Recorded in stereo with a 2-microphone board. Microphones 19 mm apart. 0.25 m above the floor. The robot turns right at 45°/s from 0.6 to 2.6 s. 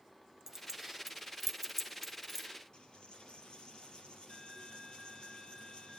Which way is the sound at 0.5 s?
25° right (ahead or behind).